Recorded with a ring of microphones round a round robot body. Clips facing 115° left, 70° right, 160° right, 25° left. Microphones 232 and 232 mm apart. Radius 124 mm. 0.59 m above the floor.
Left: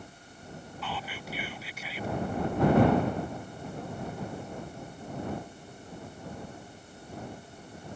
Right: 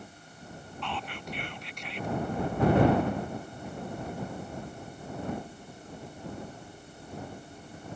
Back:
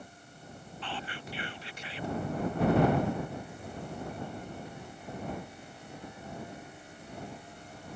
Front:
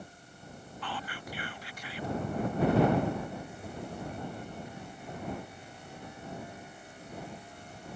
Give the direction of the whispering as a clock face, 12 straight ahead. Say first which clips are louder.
Right 1 dB, even; 6 o'clock.